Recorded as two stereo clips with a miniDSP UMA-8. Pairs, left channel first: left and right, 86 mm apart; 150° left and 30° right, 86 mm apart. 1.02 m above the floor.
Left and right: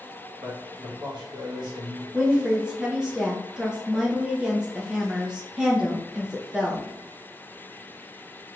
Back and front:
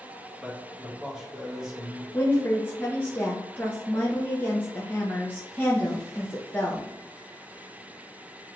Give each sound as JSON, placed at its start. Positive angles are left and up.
{"t": 0.4, "sound": "a man speaking", "azimuth_deg": -110, "distance_m": 1.5}
{"t": 2.1, "sound": "a woman speaking", "azimuth_deg": -165, "distance_m": 0.7}